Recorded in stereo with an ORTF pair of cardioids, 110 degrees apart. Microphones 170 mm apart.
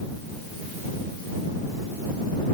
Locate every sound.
Only background noise.